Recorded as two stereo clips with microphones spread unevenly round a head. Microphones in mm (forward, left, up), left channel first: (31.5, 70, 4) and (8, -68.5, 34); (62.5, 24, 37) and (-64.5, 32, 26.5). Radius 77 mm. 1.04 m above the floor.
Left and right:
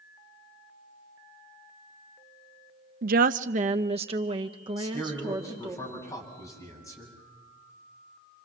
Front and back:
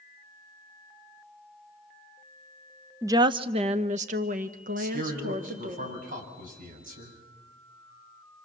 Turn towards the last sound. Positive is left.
turn(degrees=150)